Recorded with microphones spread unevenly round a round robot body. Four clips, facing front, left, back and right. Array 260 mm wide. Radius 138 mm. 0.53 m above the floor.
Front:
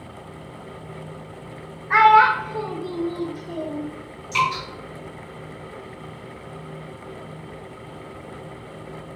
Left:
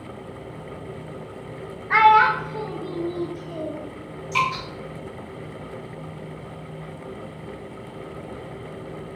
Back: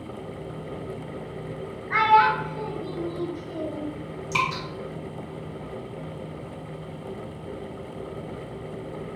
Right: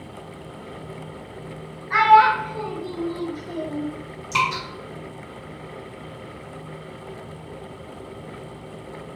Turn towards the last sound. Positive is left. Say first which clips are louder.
# right 1 dB, front 4 dB
turn(degrees=-160)